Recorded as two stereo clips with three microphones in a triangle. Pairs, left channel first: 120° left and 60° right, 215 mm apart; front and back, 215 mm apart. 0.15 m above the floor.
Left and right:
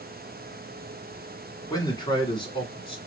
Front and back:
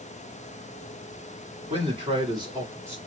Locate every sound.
1.7 s a man speaking: 170° left, 1.6 m; by 3.0 s 115° left, 1.5 m